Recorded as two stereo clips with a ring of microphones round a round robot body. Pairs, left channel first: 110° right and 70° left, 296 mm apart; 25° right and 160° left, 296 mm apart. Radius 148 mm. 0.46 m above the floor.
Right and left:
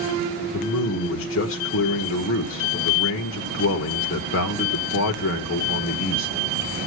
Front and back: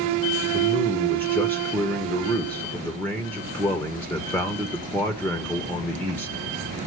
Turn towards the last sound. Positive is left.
turn(degrees=-105)